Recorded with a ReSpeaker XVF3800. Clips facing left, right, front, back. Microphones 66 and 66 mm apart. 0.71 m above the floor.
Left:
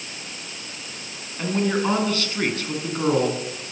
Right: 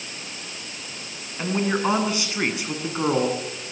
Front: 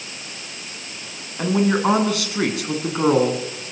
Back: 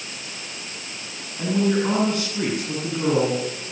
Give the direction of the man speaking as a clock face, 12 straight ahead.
1 o'clock.